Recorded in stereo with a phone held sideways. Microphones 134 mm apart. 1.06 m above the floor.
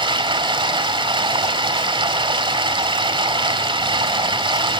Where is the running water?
40° right (ahead or behind), 4 m.